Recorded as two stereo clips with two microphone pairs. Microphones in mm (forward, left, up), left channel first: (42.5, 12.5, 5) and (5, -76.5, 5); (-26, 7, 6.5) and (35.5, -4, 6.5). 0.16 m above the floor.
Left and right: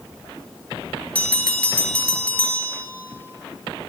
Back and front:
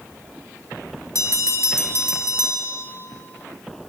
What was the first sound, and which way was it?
A bell, 140° left.